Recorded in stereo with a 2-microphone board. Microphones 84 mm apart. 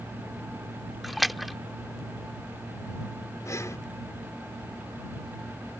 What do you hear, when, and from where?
1.0 s a splash: centre (ahead or behind)
3.5 s breathing: 40° left (ahead or behind)